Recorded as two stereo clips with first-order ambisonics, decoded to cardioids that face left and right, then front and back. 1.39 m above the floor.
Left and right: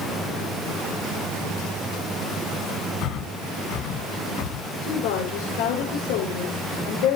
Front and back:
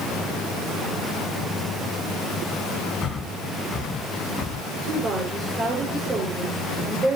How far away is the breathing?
About 2 m.